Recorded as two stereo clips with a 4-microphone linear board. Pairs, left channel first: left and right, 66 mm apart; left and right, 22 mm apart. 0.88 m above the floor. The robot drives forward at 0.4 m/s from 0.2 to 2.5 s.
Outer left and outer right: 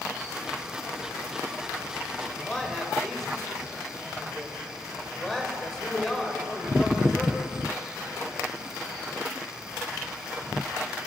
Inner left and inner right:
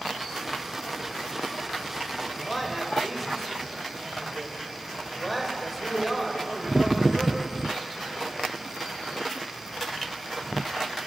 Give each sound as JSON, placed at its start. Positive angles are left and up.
{"t": 2.3, "sound": "a man speaking", "side_deg": 5, "distance_m": 4.5}